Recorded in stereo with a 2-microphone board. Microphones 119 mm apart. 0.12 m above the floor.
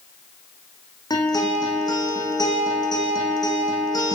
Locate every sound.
1.1 s a guitar: 35° left (ahead or behind), 7.5 m